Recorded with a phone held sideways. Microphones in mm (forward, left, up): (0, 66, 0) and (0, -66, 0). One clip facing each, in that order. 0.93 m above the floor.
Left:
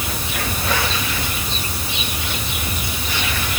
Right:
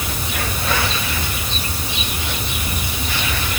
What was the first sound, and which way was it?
Only background noise.